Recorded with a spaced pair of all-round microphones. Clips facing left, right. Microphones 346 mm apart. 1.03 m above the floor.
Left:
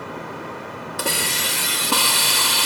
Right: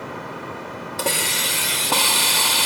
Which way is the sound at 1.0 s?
20° left (ahead or behind).